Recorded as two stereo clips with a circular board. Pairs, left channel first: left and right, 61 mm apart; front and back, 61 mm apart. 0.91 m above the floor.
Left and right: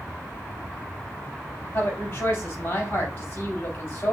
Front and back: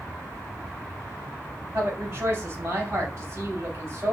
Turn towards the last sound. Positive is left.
turn(degrees=130)